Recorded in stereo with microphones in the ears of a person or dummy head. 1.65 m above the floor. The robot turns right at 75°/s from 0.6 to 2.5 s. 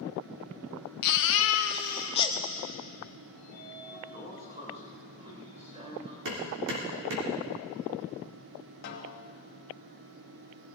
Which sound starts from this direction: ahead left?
A baby crying, at 1.0 s.